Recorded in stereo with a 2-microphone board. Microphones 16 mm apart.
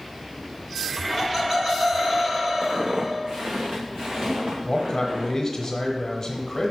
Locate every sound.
1.1 s laughter: 25° right (ahead or behind), 2 m
2.6 s footsteps: 40° right (ahead or behind), 0.7 m; by 5.7 s 70° right (ahead or behind), 3 m
4.7 s a man speaking: 20° left (ahead or behind), 1.0 m